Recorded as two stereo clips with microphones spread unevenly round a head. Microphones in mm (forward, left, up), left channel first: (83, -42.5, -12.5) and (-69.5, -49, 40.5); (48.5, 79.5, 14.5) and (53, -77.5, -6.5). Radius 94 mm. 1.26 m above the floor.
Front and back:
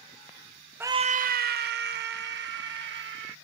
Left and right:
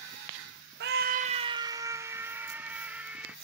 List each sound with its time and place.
0.8 s a scream: 90° right; by 3.4 s 175° right